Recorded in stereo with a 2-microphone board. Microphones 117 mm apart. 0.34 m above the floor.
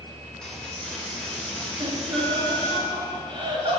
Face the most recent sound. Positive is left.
turn(degrees=-45)  # may be behind; listen again after turning